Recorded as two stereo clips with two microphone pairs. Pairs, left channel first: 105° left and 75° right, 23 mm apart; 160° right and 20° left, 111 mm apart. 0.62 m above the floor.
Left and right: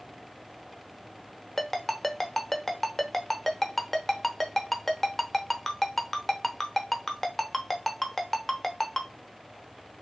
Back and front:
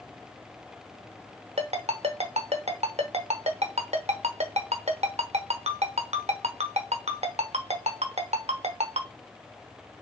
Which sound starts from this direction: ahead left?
A ringtone, at 1.6 s.